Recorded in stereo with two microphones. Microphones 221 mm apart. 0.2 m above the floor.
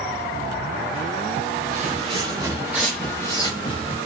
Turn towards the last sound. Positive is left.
turn(degrees=30)  # may be behind; listen again after turning